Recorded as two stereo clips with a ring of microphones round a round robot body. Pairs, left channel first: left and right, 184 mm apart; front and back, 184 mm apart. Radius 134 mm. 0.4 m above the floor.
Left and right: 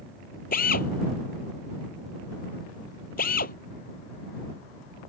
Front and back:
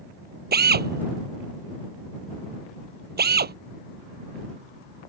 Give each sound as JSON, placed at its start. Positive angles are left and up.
{"t": 0.5, "sound": "a drill", "azimuth_deg": 150}